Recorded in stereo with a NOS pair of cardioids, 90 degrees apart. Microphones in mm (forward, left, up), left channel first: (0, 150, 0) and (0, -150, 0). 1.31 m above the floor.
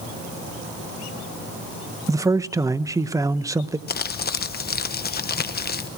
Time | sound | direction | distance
2.1 | a man speaking | 10° right | 0.8 m
3.9 | crumpling | 35° left | 1.2 m